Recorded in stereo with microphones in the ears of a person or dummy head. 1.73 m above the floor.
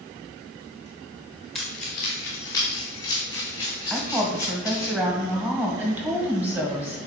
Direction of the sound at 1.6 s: 5° right (ahead or behind).